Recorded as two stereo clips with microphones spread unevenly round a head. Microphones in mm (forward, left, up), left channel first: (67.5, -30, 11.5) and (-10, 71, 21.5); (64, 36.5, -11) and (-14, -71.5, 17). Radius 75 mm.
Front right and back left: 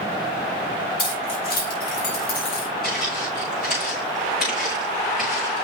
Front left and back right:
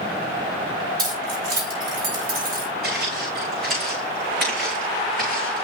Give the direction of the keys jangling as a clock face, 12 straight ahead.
4 o'clock.